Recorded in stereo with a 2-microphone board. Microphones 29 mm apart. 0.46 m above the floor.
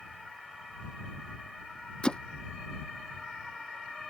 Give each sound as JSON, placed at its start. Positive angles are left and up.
{"t": 2.0, "sound": "hammering", "side_deg": 35}